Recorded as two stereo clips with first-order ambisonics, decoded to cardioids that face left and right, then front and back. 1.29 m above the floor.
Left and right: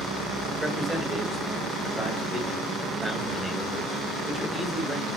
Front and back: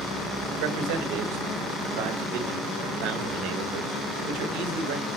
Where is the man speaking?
Straight behind, 1.4 m.